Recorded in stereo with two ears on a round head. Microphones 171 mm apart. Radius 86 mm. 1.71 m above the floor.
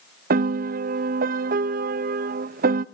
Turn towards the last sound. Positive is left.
turn(degrees=-50)  # may be behind; listen again after turning